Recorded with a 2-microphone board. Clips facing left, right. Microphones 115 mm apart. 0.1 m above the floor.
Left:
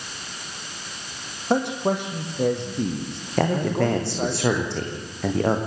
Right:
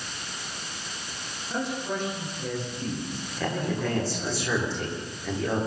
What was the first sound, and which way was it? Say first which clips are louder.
A man speaking: left 8 dB; 70° left (ahead or behind).